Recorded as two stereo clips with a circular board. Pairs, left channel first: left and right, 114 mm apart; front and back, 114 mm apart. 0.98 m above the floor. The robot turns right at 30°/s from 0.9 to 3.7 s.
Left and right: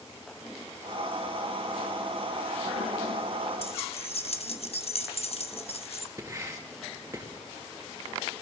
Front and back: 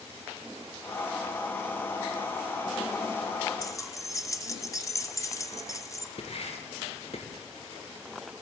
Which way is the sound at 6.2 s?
30° right.